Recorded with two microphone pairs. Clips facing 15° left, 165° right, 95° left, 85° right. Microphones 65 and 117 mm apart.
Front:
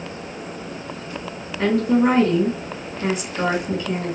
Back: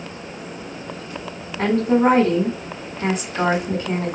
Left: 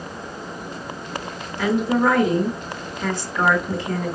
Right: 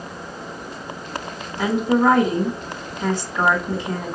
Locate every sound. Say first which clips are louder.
1.6 s a woman speaking: back 1 dB, right 1 dB; 150° right, 2.5 m